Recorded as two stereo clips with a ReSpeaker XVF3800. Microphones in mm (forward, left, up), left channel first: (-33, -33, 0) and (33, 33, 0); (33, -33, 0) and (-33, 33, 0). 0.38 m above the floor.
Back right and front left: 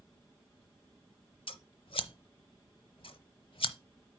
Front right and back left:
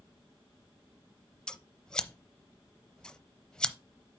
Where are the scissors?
125° right, 0.7 m.